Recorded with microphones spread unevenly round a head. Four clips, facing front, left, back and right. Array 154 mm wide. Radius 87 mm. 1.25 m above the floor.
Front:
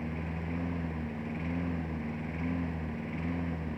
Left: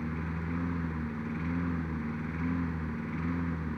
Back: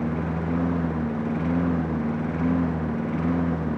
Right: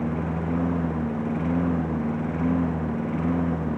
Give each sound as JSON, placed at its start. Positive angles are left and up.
{"t": 0.0, "sound": "a lawn mower", "azimuth_deg": -170}